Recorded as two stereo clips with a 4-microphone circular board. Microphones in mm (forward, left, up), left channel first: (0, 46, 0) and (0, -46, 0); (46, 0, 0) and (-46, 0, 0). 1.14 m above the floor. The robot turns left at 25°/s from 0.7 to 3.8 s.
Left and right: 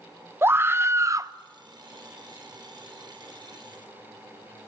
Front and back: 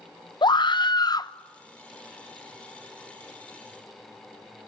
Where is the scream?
30° right, 0.8 m; by 1.3 s 45° right, 0.8 m.